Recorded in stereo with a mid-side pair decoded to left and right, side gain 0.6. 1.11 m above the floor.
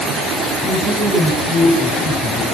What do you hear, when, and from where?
0.6 s a man speaking: 20° right, 8 m